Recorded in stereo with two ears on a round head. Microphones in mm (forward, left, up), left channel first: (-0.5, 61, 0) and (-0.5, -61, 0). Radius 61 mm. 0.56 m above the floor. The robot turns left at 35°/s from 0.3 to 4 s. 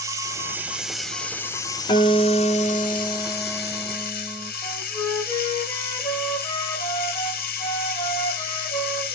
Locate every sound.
0.0 s running water: 155° right, 1.4 m; by 9.2 s 75° left, 1.4 m
1.9 s a guitar: 90° left, 1.2 m; by 4.5 s 15° left, 1.2 m
4.6 s a flute: 30° left (ahead or behind), 3 m